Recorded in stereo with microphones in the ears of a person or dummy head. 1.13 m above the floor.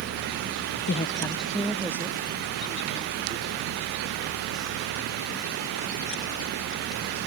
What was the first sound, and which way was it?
A woman speaking, 45° left (ahead or behind).